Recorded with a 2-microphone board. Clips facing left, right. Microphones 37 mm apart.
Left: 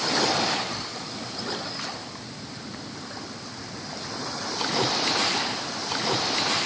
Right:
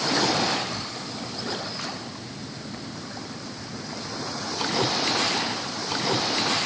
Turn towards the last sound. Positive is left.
No sound to turn to.